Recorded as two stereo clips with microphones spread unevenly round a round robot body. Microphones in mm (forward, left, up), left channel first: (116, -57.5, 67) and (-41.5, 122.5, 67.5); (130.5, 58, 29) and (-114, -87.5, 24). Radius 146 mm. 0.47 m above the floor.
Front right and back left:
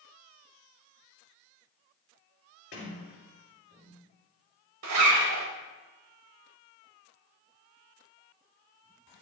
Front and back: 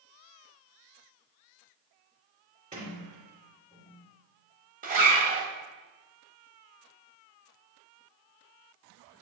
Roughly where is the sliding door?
Right.